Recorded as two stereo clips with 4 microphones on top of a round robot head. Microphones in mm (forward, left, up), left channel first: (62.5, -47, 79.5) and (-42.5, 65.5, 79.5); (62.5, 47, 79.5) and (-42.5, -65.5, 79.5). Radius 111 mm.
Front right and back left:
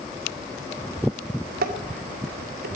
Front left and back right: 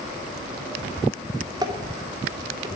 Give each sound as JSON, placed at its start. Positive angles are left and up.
{"t": 1.6, "sound": "dishes clattering", "azimuth_deg": 160, "distance_m": 2.0}